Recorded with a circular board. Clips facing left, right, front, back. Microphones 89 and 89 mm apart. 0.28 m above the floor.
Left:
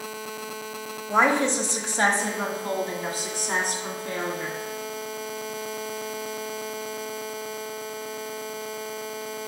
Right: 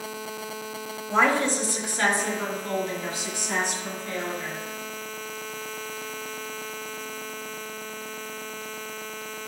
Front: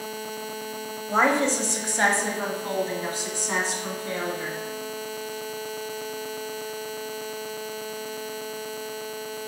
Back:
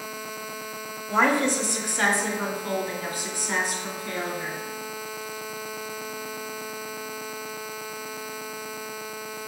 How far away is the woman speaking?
About 1.1 m.